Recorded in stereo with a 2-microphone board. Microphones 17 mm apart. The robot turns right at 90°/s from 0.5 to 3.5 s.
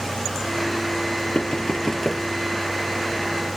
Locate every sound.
1.4 s knocking: 80° left; by 2.2 s 5° left (ahead or behind)